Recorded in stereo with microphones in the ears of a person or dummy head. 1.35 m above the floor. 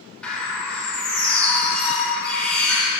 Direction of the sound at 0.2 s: 5° left (ahead or behind).